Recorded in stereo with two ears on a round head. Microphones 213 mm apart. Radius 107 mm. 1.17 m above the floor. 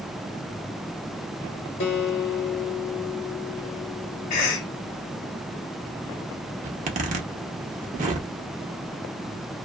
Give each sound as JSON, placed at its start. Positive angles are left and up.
{"t": 1.8, "sound": "a guitar", "side_deg": 50, "distance_m": 1.6}
{"t": 4.3, "sound": "a cough", "side_deg": 75, "distance_m": 1.1}
{"t": 6.6, "sound": "a zipper", "side_deg": -30, "distance_m": 0.8}